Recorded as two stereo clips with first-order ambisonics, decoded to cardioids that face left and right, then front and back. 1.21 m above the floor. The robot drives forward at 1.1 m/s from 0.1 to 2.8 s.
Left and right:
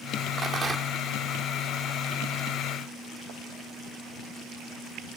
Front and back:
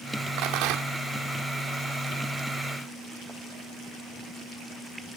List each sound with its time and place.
0.4 s a rattle: 155° right; by 1.0 s 165° right